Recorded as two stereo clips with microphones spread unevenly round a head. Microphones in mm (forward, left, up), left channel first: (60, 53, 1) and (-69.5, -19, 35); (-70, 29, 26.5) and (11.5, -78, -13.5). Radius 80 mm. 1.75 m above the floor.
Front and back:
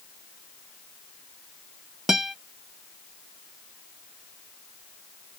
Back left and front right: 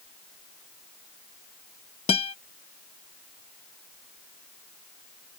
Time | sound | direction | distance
2.1 | a guitar | 130° left | ?